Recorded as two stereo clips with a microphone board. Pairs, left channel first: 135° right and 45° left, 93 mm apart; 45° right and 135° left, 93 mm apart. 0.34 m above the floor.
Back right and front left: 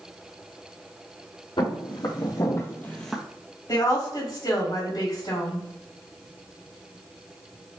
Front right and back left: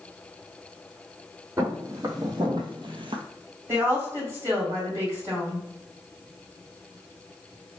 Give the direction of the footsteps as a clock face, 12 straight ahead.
6 o'clock.